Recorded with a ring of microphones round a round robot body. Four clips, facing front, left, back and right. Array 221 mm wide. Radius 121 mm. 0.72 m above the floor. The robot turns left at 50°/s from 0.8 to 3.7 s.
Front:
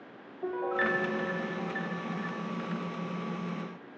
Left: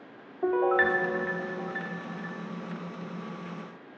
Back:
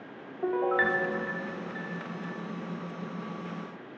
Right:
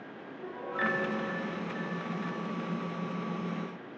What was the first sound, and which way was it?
A piano, 110° left.